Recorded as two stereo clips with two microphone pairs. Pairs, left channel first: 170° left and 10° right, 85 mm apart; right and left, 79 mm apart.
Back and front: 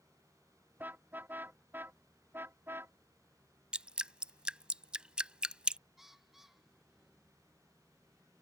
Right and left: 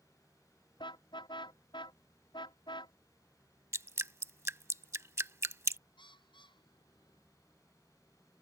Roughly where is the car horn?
Right.